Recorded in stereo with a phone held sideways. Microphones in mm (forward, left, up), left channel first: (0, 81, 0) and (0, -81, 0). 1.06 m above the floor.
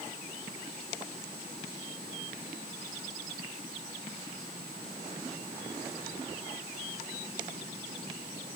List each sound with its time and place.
Only background noise.